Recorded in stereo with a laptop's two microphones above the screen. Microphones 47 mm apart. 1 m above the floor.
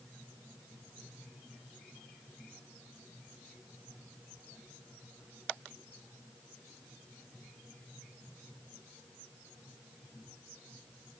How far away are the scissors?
I don't hear scissors.